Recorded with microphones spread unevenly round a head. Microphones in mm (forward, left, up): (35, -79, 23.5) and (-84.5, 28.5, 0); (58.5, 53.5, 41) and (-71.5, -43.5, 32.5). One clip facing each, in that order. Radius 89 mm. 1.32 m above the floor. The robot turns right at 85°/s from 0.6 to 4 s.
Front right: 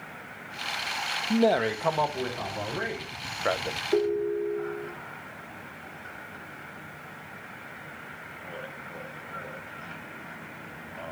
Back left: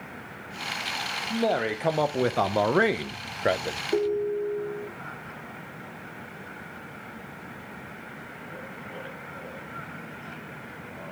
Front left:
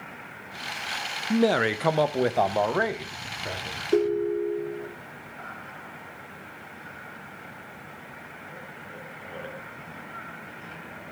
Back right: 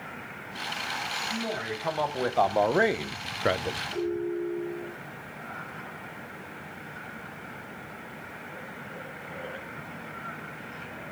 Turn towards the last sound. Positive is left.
turn(degrees=55)